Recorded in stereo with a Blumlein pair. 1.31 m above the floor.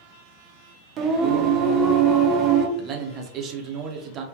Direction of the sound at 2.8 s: 30° right.